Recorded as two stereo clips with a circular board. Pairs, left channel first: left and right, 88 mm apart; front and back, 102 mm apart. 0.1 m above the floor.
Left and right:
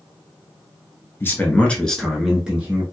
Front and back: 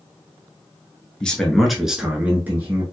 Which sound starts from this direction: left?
A man speaking, at 1.2 s.